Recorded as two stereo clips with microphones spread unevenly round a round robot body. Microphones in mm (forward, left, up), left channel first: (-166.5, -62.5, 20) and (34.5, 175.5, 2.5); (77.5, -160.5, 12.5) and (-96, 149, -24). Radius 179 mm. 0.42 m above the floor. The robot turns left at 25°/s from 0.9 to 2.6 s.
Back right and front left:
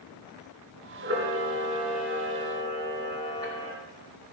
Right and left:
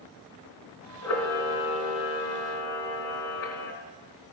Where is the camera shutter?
10° right, 2.5 m; by 3.7 s 50° right, 2.5 m.